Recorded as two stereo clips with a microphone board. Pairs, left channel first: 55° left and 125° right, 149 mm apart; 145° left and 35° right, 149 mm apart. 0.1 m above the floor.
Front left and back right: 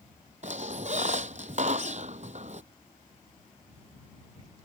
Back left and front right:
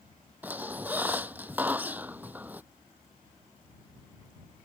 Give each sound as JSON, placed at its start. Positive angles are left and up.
{"t": 0.4, "sound": "a squeak", "azimuth_deg": -110}